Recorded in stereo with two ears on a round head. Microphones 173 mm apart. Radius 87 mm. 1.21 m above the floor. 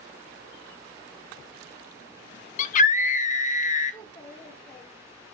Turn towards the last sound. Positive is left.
turn(degrees=15)  # may be behind; listen again after turning